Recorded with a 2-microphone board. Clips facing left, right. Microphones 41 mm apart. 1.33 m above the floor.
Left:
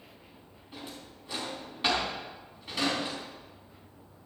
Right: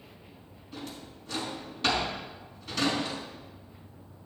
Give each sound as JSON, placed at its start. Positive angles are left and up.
{"t": 0.7, "sound": "a drawer", "side_deg": 15, "distance_m": 4.0}